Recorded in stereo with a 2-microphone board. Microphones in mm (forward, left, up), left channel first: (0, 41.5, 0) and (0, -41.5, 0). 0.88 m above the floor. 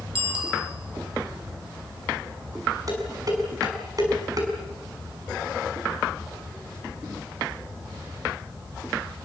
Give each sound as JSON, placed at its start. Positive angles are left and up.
{"t": 0.1, "sound": "a bicycle bell", "side_deg": -75, "distance_m": 4.0}
{"t": 2.9, "sound": "dishes clattering", "side_deg": -45, "distance_m": 5.5}